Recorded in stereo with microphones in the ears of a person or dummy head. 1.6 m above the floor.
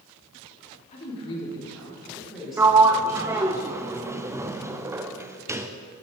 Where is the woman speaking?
35° left (ahead or behind), 3 m; by 3.6 s 15° right (ahead or behind), 5 m.